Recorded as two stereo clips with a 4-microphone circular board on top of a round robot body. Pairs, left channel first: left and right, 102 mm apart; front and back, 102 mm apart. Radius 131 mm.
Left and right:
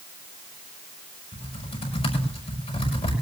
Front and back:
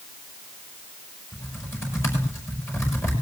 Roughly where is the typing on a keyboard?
Ahead left.